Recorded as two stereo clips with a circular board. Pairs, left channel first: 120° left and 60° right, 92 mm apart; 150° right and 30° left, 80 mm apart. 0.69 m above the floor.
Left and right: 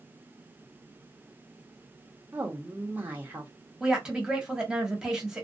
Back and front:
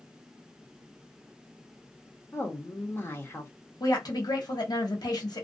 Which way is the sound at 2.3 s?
115° right.